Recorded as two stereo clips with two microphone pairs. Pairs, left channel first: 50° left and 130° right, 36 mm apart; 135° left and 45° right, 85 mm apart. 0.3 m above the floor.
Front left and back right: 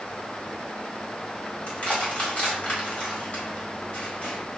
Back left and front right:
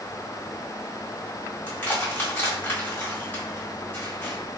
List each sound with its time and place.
1.7 s crushing: 85° left, 1.8 m